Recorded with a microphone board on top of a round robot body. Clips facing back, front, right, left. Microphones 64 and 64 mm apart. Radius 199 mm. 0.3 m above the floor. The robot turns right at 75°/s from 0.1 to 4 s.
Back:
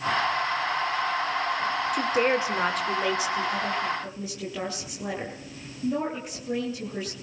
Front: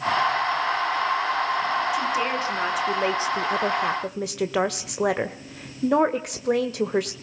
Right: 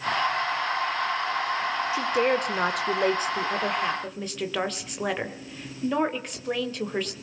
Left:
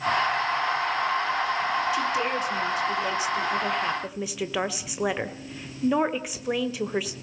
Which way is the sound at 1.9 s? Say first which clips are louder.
Back 1 dB, right 2 dB; 145° right.